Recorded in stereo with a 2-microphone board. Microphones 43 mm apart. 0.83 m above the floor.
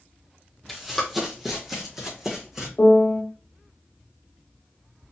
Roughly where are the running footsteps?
Centre.